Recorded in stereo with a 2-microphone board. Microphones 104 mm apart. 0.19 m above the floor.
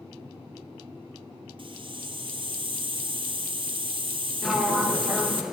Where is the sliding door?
5° right (ahead or behind), 0.7 m.